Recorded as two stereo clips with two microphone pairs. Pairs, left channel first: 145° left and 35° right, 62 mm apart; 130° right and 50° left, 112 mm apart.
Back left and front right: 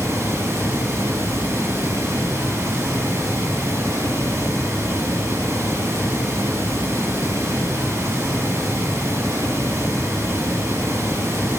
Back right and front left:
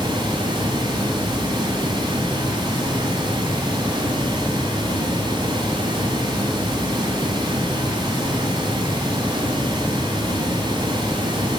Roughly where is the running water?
Ahead.